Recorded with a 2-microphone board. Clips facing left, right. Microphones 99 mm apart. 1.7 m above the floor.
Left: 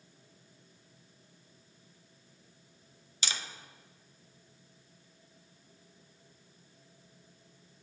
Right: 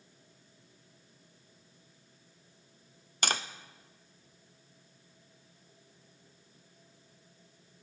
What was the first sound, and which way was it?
Tapping, 50° right (ahead or behind).